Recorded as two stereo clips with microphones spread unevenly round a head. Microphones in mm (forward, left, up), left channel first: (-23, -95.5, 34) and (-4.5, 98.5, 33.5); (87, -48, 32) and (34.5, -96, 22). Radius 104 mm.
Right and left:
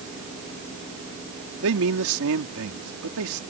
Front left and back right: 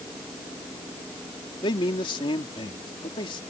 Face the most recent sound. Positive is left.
turn(degrees=65)